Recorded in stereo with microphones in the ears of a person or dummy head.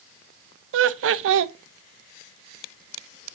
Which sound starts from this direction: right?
Laughter, at 0.7 s.